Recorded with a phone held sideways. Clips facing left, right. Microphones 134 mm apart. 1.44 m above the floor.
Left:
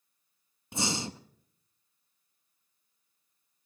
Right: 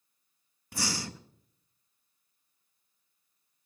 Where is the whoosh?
No whoosh in this recording.